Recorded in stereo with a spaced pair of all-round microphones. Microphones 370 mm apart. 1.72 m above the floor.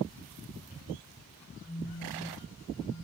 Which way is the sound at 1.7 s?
45° left (ahead or behind).